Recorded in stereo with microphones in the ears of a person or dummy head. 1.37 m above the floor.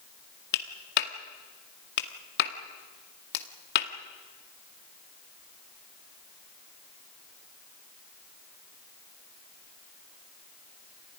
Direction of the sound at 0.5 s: 60° left (ahead or behind).